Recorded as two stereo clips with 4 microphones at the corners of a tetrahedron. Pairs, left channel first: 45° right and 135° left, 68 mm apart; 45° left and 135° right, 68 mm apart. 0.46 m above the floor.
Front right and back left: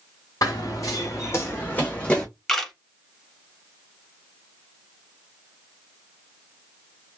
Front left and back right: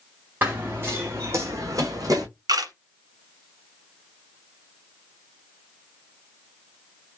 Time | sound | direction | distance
0.4 | running footsteps | 75° right | 1.9 m
2.5 | a camera shutter | 130° right | 1.4 m